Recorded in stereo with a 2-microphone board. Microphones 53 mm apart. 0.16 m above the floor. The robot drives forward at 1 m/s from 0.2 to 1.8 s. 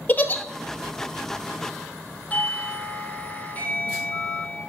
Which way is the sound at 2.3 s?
30° left (ahead or behind).